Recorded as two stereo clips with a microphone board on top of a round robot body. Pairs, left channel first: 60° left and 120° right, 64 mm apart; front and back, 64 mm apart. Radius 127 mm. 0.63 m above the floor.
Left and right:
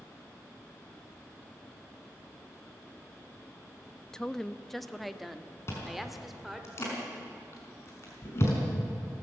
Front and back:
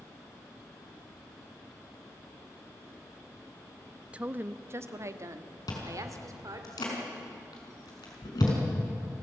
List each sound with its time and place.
4.1 s a woman speaking: 130° left, 0.7 m; by 6.7 s 155° left, 2.5 m
5.7 s chewing: 10° left, 5 m